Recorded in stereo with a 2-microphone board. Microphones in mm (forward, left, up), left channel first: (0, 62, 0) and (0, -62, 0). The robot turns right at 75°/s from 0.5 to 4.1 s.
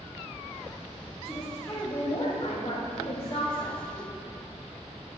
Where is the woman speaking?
10° right, 3 m; by 4.1 s 155° right, 3 m.